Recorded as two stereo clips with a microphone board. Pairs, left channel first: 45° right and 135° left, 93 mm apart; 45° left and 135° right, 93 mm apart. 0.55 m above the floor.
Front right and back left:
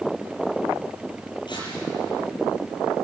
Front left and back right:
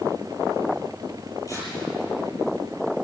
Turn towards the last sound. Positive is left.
turn(degrees=-10)